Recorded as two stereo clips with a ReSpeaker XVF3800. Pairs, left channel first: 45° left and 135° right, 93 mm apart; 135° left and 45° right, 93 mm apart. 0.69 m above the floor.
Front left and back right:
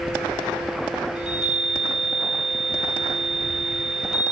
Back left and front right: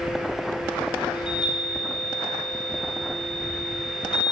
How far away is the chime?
About 2.5 m.